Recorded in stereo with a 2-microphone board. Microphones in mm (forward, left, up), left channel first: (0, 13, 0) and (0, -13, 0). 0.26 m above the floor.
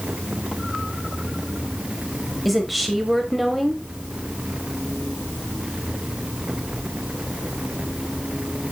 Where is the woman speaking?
Centre (ahead or behind), 1.2 m.